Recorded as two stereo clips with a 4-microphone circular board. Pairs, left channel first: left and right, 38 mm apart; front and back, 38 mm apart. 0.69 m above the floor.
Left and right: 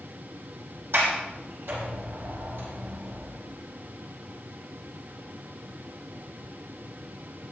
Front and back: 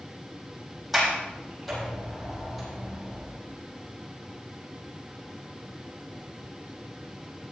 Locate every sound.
0.9 s a sliding door: 95° right, 6.5 m